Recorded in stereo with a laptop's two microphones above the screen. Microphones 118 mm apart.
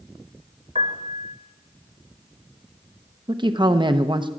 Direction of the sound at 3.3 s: 40° right (ahead or behind).